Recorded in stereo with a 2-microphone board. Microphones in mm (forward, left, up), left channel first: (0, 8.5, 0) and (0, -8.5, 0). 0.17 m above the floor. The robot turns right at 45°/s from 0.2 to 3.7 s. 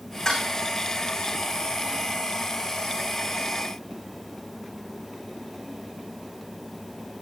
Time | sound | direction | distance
0.2 | dishes clattering | 30° left (ahead or behind) | 7 m